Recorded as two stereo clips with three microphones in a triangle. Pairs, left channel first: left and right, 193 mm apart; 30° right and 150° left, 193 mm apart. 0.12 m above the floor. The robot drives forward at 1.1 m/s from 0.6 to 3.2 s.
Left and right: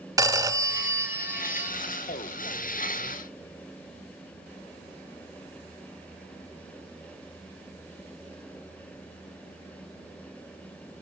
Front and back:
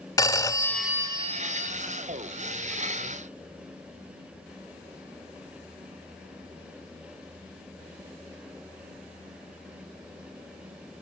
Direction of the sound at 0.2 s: 60° right.